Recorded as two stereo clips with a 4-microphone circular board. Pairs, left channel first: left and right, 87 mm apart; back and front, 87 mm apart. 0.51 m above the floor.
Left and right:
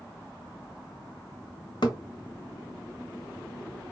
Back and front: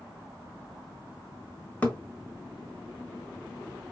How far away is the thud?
About 1.1 m.